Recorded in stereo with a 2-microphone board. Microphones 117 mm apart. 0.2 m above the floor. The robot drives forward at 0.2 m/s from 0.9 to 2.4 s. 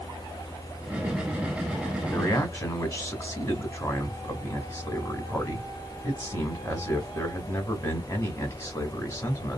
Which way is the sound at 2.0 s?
25° left (ahead or behind).